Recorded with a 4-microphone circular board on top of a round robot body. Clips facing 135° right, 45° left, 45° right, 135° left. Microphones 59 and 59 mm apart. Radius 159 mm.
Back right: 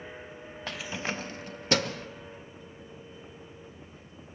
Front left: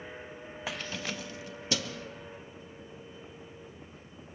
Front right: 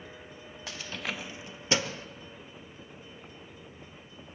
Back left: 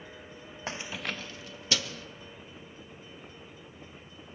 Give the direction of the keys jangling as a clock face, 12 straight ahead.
8 o'clock.